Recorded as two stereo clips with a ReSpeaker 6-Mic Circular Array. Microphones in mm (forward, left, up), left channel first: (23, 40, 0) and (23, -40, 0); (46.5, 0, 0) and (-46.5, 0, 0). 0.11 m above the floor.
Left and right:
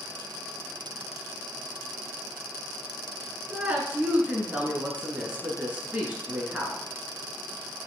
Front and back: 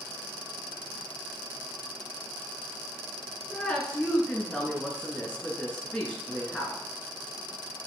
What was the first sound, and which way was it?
A woman speaking, 60° right.